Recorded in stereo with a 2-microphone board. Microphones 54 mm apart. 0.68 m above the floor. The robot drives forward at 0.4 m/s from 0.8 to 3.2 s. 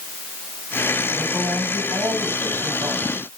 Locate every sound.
1.1 s a man speaking: 65° right (ahead or behind), 6 m; by 3.4 s 70° right (ahead or behind), 5.5 m